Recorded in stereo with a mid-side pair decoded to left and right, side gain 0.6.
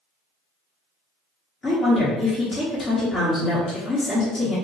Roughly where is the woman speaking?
Ahead left.